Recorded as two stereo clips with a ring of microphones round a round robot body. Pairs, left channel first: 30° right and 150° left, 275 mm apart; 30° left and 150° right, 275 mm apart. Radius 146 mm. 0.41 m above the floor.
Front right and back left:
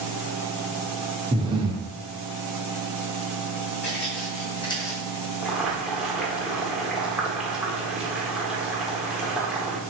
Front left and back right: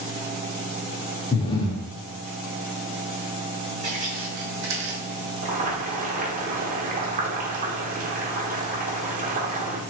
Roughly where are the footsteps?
Right.